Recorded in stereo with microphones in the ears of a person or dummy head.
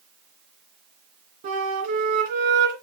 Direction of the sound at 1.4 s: 45° right (ahead or behind).